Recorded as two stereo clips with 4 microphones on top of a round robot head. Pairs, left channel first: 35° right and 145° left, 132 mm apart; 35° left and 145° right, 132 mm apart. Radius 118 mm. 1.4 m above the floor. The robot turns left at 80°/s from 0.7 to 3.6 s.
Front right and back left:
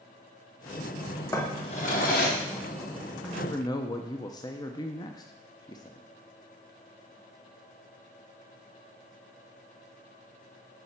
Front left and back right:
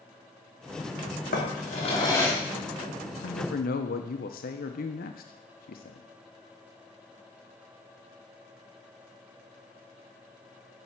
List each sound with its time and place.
1.3 s a drawer: 35° left, 0.8 m; by 2.4 s 50° right, 0.8 m
3.2 s a man speaking: 55° left, 0.5 m; by 6.0 s 25° left, 0.5 m